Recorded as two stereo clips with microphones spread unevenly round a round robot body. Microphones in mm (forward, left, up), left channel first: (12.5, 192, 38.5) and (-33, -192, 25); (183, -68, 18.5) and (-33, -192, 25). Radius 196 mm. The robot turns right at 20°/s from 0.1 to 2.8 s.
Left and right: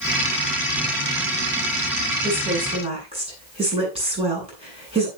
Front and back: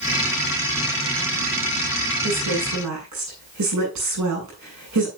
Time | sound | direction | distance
2.2 | a woman speaking | 175° left | 9.5 m